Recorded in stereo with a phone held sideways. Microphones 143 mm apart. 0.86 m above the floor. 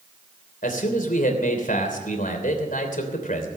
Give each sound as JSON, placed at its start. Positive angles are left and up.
{"t": 0.6, "sound": "a man speaking", "side_deg": 75, "distance_m": 3.0}